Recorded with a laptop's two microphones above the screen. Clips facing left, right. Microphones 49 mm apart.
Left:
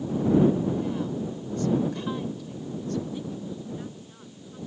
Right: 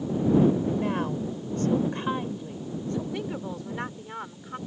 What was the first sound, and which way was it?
A woman speaking, 60° right (ahead or behind).